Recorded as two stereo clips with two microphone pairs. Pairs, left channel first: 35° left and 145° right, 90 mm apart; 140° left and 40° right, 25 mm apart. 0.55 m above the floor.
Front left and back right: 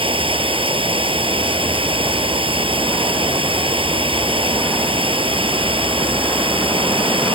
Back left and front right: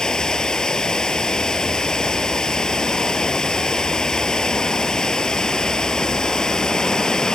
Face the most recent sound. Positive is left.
turn(degrees=-155)